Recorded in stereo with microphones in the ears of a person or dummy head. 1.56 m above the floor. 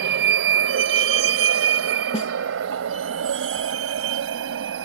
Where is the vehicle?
60° right (ahead or behind); by 4.8 s 70° right (ahead or behind).